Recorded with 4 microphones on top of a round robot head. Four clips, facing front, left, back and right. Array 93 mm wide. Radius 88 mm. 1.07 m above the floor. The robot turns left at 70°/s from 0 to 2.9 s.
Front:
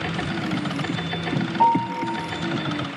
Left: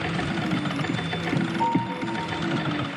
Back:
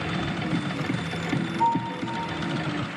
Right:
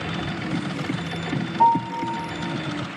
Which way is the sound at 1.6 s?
25° right.